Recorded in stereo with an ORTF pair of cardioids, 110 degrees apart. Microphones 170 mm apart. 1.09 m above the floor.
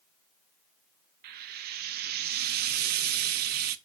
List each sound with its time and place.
1.2 s frying: 70° right, 0.6 m